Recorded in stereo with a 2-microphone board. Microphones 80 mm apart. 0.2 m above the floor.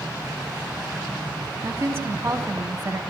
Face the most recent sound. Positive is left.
turn(degrees=-25)  # may be behind; listen again after turning